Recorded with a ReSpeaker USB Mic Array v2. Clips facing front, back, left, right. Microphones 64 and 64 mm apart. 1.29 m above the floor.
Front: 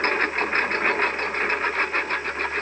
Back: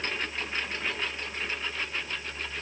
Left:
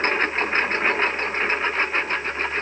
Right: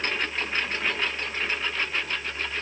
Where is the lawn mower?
40° left.